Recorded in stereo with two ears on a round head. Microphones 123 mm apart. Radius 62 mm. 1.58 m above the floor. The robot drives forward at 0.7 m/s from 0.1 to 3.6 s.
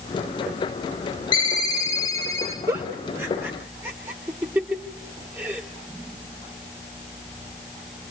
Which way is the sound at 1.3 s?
35° left (ahead or behind).